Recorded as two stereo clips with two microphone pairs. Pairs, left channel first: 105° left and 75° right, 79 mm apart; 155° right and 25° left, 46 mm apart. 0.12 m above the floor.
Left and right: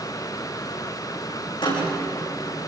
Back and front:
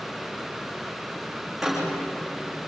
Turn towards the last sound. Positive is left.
turn(degrees=110)